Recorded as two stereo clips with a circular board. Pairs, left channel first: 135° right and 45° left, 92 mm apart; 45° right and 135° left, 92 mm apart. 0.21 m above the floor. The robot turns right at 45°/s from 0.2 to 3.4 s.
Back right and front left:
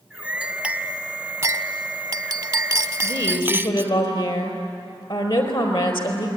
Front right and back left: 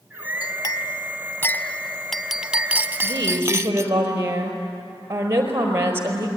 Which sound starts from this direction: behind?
A woman speaking, at 3.0 s.